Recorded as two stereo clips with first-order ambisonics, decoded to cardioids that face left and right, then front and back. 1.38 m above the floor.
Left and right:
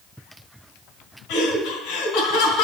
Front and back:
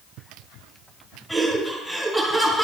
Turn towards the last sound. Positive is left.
turn(degrees=90)